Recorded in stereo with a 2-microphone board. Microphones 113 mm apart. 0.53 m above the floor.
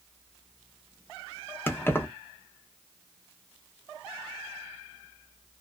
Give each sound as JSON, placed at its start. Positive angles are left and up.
{"t": 1.7, "sound": "keys jangling", "side_deg": 20, "distance_m": 0.6}